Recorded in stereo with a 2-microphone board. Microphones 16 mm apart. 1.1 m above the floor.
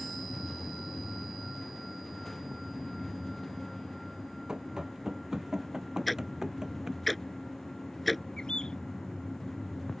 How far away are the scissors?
I don't hear scissors.